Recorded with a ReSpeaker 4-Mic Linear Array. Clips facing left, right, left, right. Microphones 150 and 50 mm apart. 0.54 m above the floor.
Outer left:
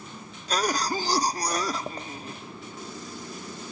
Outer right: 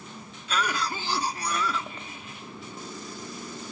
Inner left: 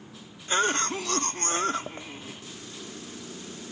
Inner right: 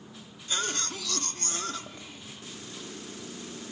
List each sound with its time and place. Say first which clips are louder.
0.5 s a cough: outer left 3 dB, inner left 8 dB; 35° left (ahead or behind), 0.8 m